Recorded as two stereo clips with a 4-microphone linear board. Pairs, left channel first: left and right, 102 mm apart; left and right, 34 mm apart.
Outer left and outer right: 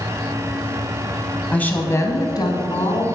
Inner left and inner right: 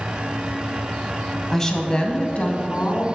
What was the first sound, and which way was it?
A woman speaking, 10° left (ahead or behind).